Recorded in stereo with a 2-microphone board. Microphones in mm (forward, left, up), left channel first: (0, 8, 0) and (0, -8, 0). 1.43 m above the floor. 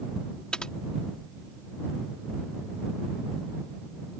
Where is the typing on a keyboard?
65° left (ahead or behind).